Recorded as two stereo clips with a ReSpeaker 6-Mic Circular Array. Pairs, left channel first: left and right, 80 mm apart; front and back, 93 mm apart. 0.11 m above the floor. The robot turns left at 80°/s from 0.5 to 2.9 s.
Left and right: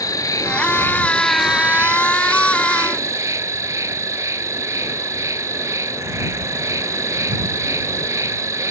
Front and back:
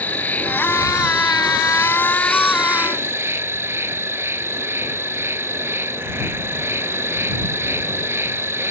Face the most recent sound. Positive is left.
turn(degrees=-125)